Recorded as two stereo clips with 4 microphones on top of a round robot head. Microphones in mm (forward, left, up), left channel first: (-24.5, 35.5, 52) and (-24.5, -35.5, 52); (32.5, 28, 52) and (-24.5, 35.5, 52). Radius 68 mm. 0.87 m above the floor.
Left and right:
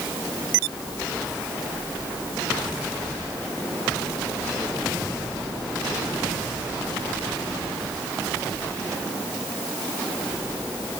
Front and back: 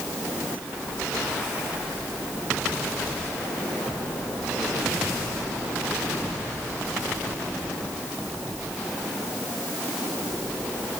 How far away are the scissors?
I don't hear scissors.